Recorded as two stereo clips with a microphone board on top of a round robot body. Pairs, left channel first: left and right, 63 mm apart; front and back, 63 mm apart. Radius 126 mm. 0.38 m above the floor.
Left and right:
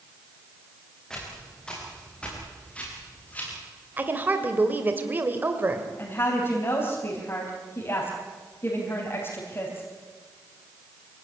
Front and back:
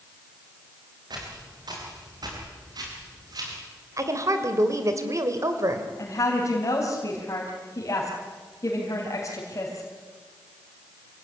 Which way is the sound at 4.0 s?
150° right.